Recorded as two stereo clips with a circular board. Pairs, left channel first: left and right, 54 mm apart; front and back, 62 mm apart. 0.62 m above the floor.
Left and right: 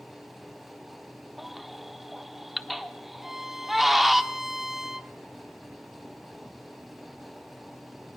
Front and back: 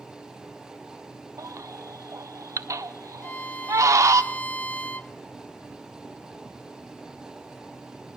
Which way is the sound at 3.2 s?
15° right.